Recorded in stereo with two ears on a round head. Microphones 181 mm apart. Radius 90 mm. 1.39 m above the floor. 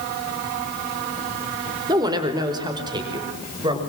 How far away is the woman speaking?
About 4 m.